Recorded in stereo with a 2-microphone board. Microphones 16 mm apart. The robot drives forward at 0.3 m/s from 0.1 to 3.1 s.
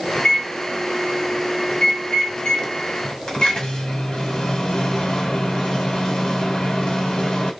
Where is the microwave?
80° left, 1.5 m; by 7.5 s 60° left (ahead or behind), 1.7 m.